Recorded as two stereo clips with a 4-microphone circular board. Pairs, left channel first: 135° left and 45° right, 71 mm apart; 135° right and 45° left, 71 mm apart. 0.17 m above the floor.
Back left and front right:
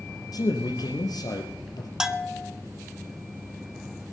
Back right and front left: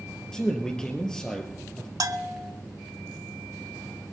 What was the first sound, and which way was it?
A man speaking, 145° left.